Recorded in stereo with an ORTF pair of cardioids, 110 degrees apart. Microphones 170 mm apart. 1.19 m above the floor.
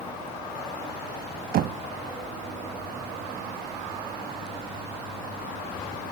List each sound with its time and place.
1.5 s knocking: 60° right, 0.8 m